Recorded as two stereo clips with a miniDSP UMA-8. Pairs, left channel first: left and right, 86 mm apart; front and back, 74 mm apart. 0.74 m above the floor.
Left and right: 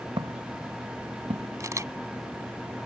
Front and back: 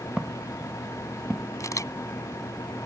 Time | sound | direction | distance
0.2 | footsteps | 95° right | ?
1.6 | a camera shutter | 40° right | ?